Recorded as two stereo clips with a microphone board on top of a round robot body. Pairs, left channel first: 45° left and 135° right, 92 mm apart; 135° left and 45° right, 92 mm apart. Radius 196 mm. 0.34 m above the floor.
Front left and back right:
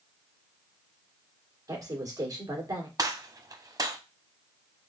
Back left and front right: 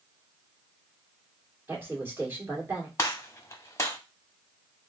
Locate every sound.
1.7 s a woman speaking: 105° right, 2.0 m
3.0 s a gunshot: 170° right, 0.9 m